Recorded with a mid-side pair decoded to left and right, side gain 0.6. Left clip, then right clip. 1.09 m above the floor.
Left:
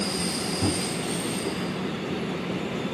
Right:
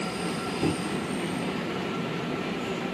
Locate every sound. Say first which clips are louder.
0.6 s a microwave: even; 5° left, 1.5 m